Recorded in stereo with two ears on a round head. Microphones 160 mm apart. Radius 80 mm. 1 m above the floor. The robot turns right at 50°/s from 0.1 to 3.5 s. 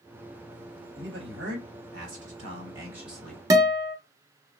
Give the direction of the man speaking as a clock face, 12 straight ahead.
4 o'clock.